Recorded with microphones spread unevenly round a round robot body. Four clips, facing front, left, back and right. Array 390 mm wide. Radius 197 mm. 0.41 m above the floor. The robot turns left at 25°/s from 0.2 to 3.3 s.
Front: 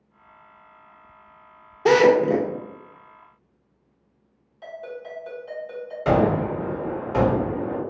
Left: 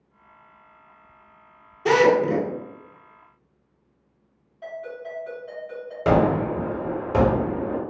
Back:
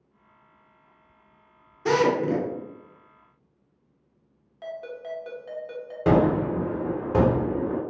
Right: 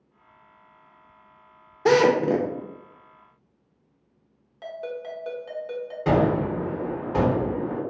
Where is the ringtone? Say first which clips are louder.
Right 1 dB, even; 110° right, 1.1 m.